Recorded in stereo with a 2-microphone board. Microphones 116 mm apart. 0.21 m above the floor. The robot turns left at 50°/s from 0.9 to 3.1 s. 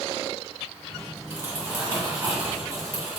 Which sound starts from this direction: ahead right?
Crumpling, at 1.3 s.